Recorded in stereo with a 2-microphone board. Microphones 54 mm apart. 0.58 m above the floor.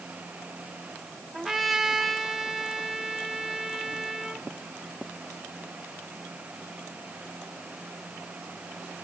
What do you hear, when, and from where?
1.3 s a trumpet: 10° right (ahead or behind), 1.5 m